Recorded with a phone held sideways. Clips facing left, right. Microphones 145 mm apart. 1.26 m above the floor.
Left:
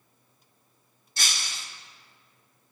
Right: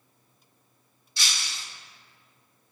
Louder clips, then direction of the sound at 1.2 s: Left 1 dB; 45° left (ahead or behind).